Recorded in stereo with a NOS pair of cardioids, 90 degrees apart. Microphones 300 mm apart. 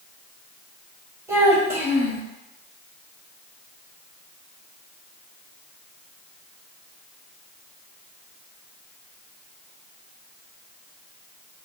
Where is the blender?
No blender in this recording.